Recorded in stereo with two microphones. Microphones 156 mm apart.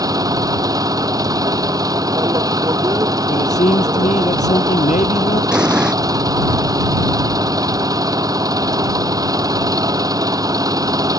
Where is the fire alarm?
No fire alarm in this recording.